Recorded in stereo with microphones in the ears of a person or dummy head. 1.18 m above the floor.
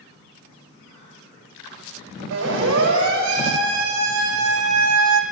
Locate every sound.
2.3 s a siren: 60° right (ahead or behind), 8.5 m; by 5.2 s 80° right, 4.5 m